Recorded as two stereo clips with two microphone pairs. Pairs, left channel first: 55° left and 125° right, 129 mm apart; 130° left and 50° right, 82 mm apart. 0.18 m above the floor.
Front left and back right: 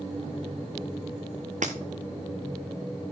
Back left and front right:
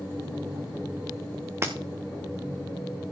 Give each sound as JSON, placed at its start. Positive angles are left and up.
{"t": 1.6, "sound": "breaking glass", "azimuth_deg": -110, "distance_m": 1.7}